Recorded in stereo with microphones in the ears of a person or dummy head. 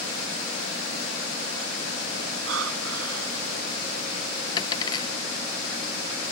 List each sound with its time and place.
2.5 s breathing: 85° right
4.6 s a dropped coin: 25° left (ahead or behind)